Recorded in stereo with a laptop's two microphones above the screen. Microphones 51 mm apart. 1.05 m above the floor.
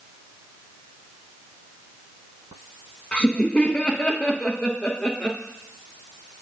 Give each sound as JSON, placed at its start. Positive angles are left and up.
{"t": 3.1, "sound": "laughter", "side_deg": 25, "distance_m": 0.8}